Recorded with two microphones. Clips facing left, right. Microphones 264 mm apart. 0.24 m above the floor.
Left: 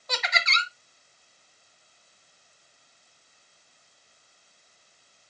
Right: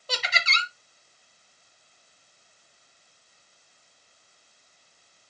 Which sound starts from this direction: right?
Laughter, at 0.1 s.